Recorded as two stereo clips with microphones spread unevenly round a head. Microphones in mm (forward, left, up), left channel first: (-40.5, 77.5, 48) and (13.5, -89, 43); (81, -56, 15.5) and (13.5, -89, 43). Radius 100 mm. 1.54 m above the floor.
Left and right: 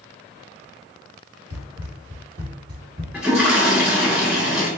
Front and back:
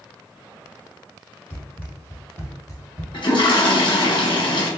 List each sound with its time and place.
1.5 s running footsteps: 60° right, 1.9 m; by 3.0 s 10° right, 1.6 m
3.1 s a toilet flushing: 15° left, 1.4 m